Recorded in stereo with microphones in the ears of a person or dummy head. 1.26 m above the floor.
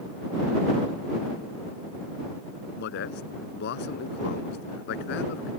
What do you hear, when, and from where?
2.8 s a man speaking: 60° left (ahead or behind)